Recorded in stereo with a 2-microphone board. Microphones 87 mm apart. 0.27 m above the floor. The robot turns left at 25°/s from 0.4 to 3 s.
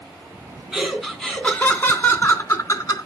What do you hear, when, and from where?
0.7 s laughter: 175° right, 2.5 m; by 3.1 s 130° left, 2.5 m